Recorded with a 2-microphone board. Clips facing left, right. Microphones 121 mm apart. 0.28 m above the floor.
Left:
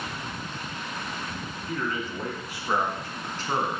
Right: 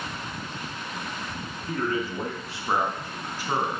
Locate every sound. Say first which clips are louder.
1.7 s a man speaking: right 4 dB; 40° right (ahead or behind), 2.5 m; by 3.8 s 5° right (ahead or behind), 2.5 m